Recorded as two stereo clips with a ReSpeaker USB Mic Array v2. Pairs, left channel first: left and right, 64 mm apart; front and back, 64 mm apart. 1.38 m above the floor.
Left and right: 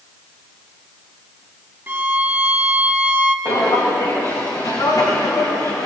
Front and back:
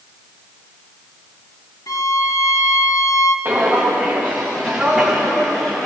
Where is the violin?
30° right, 1.1 m.